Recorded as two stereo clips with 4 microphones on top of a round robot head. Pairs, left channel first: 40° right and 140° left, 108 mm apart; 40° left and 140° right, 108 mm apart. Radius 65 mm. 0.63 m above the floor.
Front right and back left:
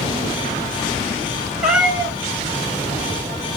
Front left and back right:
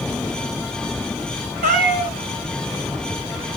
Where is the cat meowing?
135° right, 2 m.